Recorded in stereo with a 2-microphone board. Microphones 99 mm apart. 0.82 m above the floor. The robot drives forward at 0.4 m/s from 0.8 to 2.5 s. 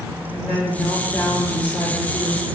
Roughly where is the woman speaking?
Centre.